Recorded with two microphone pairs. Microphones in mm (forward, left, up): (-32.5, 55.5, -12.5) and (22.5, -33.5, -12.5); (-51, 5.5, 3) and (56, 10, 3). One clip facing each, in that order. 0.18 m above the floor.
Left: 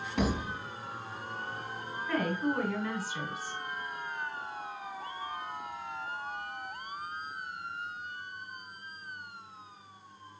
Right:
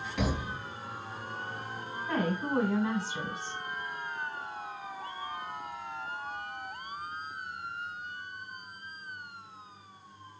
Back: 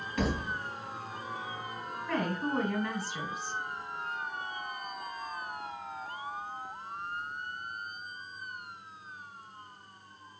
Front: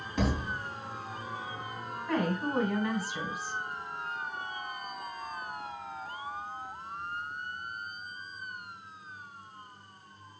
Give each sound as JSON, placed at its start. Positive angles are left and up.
{"t": 0.2, "sound": "a thud", "azimuth_deg": 65, "distance_m": 2.0}
{"t": 2.1, "sound": "a woman speaking", "azimuth_deg": -65, "distance_m": 1.3}